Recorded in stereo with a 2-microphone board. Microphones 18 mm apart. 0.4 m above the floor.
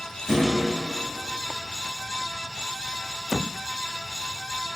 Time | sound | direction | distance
0.3 | a thud | 25° right (ahead or behind) | 1.5 m